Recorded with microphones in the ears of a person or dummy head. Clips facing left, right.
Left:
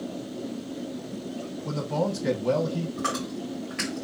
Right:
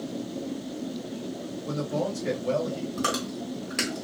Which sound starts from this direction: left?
A man speaking, at 1.6 s.